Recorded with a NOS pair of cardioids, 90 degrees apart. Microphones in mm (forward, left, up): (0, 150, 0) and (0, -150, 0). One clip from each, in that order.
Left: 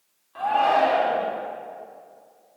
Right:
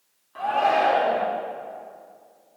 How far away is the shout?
About 3 m.